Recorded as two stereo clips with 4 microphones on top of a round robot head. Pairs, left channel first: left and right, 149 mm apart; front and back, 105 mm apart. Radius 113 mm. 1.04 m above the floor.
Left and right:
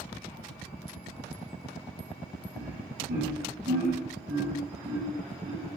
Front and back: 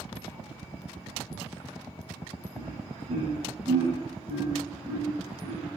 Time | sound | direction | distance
2.5 | laughter | 125° right | 8 m